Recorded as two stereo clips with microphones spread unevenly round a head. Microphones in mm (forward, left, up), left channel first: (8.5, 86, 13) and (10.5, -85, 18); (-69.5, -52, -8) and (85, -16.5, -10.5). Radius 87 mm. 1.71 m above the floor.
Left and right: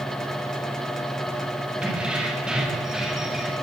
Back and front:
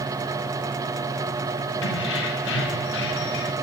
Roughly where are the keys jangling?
Behind.